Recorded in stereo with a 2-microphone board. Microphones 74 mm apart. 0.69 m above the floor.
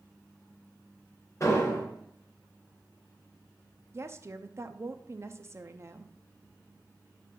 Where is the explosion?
40° left (ahead or behind), 2.5 m.